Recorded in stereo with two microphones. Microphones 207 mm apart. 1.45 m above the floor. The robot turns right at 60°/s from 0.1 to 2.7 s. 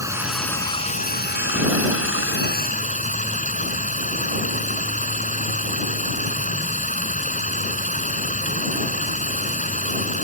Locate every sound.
0.0 s running water: 15° right; by 10.2 s 140° left